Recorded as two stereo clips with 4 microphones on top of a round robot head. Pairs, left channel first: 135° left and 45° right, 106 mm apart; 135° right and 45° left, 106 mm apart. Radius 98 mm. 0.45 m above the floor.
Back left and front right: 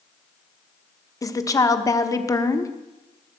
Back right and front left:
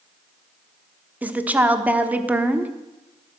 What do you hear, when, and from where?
1.2 s a woman speaking: 110° left, 1.2 m